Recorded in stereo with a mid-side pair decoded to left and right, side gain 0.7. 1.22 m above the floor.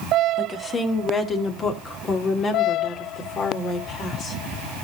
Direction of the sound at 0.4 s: 25° left.